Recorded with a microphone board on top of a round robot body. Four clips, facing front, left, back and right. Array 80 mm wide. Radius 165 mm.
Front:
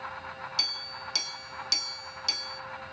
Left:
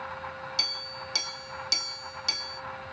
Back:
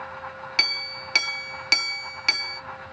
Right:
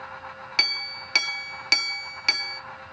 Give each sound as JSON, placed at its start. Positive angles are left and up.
{"t": 0.6, "sound": "a clink", "azimuth_deg": -140, "distance_m": 0.6}